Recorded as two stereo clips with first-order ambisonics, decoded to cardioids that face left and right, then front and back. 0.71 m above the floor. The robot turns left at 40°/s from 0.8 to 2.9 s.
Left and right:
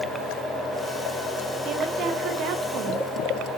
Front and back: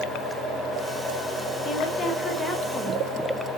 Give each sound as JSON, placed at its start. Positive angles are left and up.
{"t": 1.6, "sound": "a woman speaking", "azimuth_deg": -45, "distance_m": 1.1}